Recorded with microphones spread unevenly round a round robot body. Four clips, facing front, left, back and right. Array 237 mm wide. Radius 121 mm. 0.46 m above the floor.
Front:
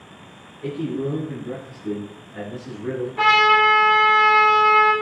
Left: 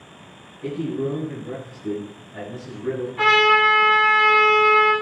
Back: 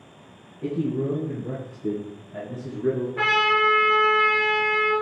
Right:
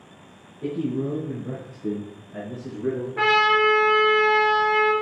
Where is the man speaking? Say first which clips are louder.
Left 1 dB, even; 135° right, 5 m; by 3.1 s 125° right, 6 m.